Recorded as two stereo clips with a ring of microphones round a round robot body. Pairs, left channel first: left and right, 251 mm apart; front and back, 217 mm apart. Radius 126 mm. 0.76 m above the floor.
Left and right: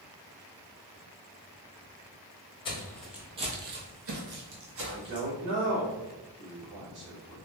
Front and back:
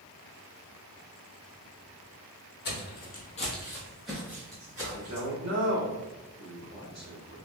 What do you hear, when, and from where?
2.6 s footsteps: 25° left, 1.1 m; by 5.2 s 110° right, 2 m
4.9 s a man speaking: 130° right, 1.8 m